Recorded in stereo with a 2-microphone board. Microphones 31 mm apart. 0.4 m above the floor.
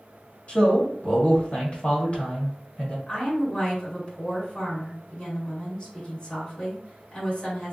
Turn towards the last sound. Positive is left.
turn(degrees=30)  # may be behind; listen again after turning